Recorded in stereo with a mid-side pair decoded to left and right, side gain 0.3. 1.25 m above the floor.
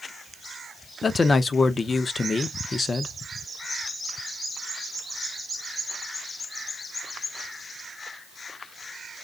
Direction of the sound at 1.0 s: 55° left.